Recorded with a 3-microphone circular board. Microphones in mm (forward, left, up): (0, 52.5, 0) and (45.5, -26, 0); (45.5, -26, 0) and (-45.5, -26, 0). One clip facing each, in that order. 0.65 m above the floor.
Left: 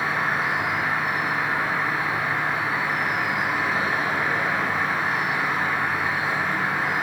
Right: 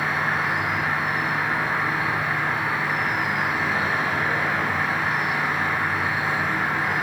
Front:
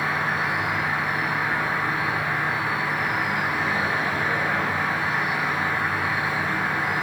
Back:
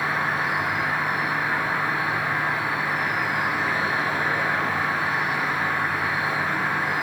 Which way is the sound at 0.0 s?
160° right.